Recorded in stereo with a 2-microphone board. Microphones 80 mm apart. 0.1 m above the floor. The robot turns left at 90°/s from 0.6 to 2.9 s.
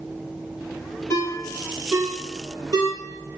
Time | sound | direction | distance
1.1 | a ringtone | 40° left (ahead or behind) | 1.4 m